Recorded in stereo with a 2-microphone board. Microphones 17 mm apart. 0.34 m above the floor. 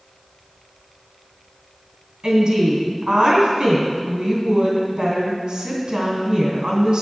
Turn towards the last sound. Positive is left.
turn(degrees=-55)  # may be behind; listen again after turning